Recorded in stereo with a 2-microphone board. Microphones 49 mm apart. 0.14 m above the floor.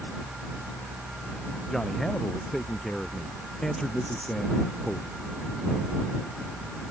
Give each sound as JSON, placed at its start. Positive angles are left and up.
{"t": 1.7, "sound": "a man speaking", "side_deg": 10}